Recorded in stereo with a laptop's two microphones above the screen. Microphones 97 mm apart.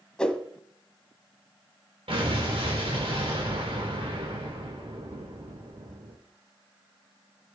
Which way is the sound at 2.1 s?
80° right.